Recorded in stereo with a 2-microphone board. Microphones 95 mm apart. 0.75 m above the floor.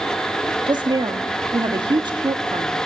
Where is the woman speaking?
50° right (ahead or behind), 1.4 m.